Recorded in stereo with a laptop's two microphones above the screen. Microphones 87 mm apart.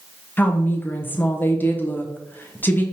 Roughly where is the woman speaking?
Left.